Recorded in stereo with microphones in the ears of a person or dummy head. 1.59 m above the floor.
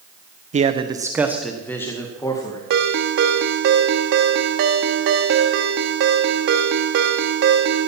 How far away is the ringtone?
About 1.6 m.